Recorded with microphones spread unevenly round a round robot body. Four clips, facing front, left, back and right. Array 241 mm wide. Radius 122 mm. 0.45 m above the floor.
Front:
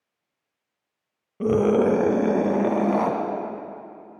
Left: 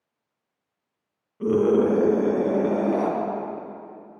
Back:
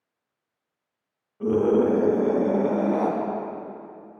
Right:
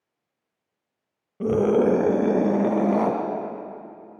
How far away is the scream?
About 1.9 m.